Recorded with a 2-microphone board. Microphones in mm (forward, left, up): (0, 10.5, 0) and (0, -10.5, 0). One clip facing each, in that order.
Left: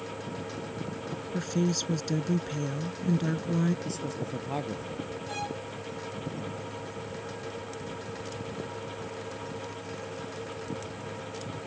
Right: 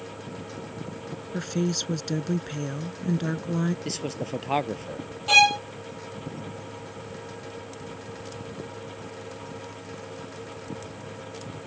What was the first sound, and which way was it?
A woman speaking, 10° right (ahead or behind).